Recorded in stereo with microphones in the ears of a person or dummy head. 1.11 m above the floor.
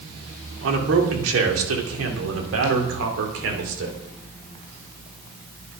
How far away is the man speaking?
About 3.5 m.